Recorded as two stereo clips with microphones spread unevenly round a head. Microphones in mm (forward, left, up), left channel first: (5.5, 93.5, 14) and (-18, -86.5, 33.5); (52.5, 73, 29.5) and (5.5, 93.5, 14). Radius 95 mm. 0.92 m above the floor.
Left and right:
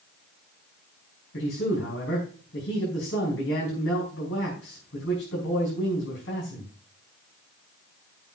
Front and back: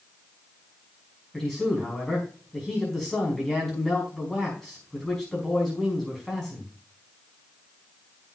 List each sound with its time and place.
1.3 s a man speaking: 65° left, 5 m